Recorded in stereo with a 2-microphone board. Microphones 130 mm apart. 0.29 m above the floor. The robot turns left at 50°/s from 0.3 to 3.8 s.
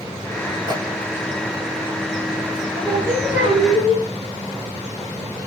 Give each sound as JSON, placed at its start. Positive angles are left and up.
{"t": 0.7, "sound": "a microwave", "side_deg": -35, "distance_m": 1.6}
{"t": 2.8, "sound": "singing", "azimuth_deg": -140, "distance_m": 5.5}